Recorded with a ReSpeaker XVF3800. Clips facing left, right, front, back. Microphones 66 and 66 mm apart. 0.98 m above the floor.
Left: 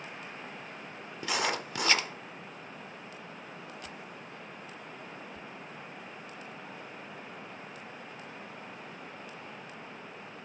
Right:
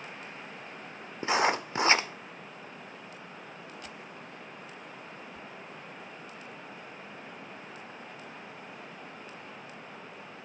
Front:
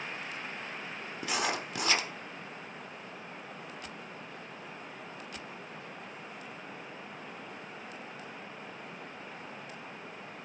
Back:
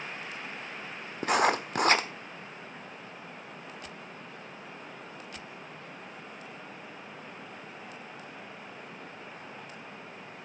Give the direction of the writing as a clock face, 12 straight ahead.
5 o'clock.